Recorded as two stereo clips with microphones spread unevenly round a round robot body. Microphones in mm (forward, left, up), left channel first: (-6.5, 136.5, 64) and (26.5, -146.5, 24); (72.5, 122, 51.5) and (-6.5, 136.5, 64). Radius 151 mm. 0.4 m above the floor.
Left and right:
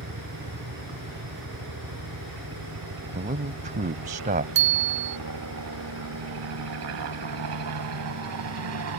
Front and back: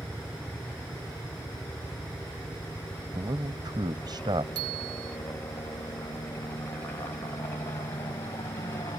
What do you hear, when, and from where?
0.0 s a helicopter: 100° right; by 9.0 s 70° right
3.1 s a man speaking: 140° right
4.5 s a bicycle bell: 135° right